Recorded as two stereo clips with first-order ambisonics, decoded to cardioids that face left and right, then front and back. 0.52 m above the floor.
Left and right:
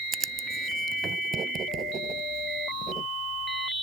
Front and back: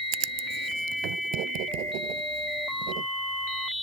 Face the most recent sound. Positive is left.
turn(degrees=-155)